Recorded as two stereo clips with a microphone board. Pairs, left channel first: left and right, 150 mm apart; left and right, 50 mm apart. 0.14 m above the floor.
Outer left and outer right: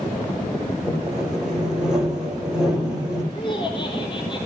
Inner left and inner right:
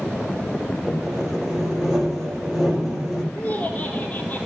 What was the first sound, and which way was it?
Sawing, 5° right (ahead or behind).